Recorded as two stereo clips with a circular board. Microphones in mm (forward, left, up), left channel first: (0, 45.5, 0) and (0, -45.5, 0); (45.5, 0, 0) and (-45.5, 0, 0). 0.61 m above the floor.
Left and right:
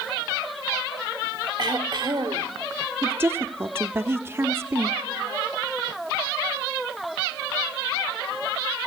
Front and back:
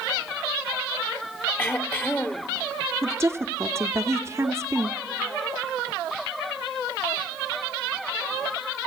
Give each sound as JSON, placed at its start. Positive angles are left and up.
{"t": 1.6, "sound": "throat clearing", "azimuth_deg": -65, "distance_m": 1.4}
{"t": 3.0, "sound": "a woman speaking", "azimuth_deg": -140, "distance_m": 0.9}